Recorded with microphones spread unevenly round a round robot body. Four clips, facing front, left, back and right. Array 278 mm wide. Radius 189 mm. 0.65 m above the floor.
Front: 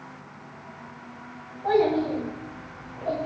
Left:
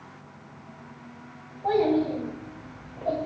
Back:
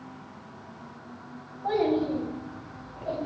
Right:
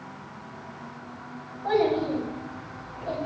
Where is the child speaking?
85° left, 3.5 m; by 3.3 s 90° left, 2 m.